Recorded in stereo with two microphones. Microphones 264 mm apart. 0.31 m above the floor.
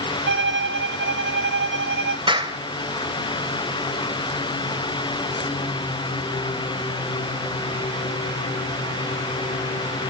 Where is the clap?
20° right (ahead or behind), 1.3 m.